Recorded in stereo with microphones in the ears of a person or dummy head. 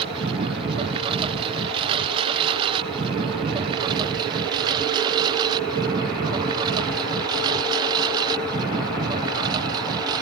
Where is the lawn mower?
30° right (ahead or behind); by 10.2 s 25° right (ahead or behind).